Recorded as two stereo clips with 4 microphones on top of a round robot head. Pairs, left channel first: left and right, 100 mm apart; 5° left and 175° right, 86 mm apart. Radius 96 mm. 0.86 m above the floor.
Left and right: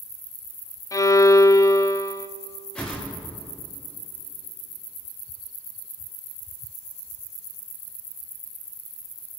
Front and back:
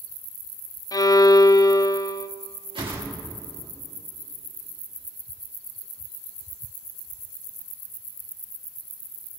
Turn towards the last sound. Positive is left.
turn(degrees=170)